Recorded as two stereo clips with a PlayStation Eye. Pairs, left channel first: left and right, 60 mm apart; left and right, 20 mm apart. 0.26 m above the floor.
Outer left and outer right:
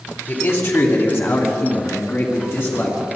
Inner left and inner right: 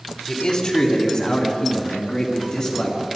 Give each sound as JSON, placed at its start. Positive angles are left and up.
{"t": 0.3, "sound": "a man speaking", "side_deg": 45, "distance_m": 1.7}